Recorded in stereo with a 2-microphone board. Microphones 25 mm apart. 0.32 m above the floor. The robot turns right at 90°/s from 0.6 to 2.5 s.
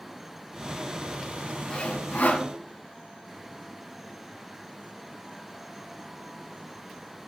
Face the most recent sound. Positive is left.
turn(degrees=120)